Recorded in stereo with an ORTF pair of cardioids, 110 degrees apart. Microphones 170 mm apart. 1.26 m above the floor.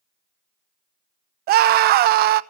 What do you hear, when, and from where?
1.5 s a scream: 70° right, 0.8 m